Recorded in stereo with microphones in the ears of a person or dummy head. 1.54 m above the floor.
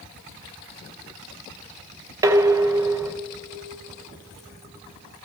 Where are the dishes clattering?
15° right (ahead or behind), 0.8 m.